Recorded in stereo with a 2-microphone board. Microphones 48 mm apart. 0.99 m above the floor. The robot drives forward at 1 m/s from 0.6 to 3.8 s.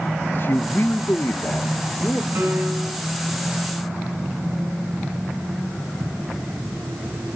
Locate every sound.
0.3 s a man speaking: 45° left (ahead or behind), 1.0 m; by 2.2 s 25° left (ahead or behind), 1.6 m
2.4 s a piano: 55° right (ahead or behind), 6 m; by 3.0 s 50° right (ahead or behind), 6.5 m